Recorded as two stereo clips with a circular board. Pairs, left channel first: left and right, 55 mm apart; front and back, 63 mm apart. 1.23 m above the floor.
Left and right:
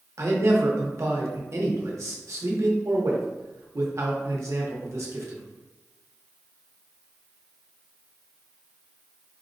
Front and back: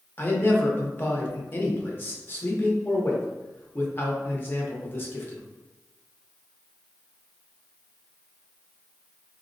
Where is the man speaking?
60° right, 0.7 m.